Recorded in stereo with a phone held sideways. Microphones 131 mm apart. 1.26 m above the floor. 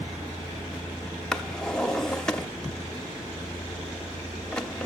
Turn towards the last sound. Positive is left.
turn(degrees=5)  # may be behind; listen again after turning